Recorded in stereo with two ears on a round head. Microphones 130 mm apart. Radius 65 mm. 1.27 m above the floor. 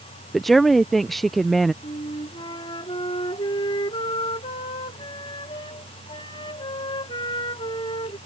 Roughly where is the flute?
Left.